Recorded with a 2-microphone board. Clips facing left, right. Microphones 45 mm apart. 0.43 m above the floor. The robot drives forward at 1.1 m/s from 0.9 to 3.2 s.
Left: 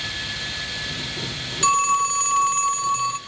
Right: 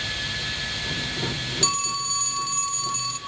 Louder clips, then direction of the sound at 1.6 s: Left 12 dB; 35° left (ahead or behind).